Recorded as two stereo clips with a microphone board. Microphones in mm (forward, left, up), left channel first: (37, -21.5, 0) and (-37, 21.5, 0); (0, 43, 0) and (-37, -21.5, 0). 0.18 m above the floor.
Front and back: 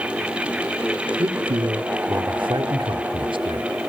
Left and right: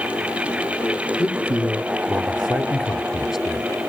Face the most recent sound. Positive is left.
turn(degrees=155)